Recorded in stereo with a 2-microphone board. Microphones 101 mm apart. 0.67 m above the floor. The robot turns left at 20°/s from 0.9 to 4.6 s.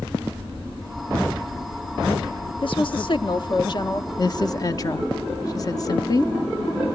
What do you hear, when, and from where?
2.6 s a woman speaking: 55° left (ahead or behind), 0.8 m; by 4.1 s 45° left (ahead or behind), 0.8 m
4.2 s a woman speaking: 45° left (ahead or behind), 0.8 m; by 6.3 s 40° left (ahead or behind), 0.8 m